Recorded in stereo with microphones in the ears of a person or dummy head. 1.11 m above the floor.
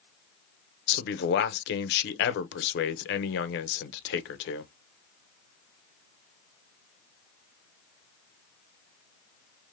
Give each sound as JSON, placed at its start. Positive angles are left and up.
{"t": 0.9, "sound": "a man speaking", "side_deg": 60, "distance_m": 0.6}